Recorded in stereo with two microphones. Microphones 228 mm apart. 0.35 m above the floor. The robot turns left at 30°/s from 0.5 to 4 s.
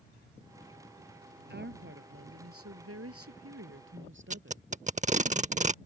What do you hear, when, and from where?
1.5 s a woman speaking: 45° right; by 4.6 s 120° right
4.3 s tape being pulled: 30° right (ahead or behind)